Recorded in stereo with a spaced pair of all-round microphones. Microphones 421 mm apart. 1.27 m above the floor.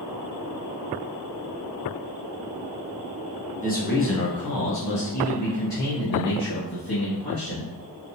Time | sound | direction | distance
3.6 | a man speaking | 20° left (ahead or behind) | 1.1 m